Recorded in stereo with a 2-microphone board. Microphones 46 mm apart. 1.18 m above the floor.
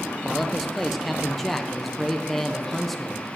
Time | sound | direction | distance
0.2 | a man speaking | 5° left (ahead or behind) | 0.9 m